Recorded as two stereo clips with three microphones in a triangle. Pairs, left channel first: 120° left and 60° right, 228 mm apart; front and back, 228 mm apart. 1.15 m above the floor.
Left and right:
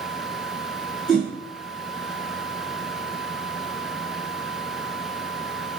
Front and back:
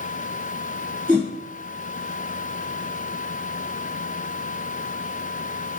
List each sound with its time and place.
1.1 s a whoosh: 150° left, 1.4 m